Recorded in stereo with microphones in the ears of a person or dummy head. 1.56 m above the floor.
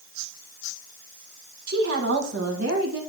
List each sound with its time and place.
1.7 s a woman speaking: 60° right (ahead or behind), 1.5 m; by 3.0 s 80° right, 2 m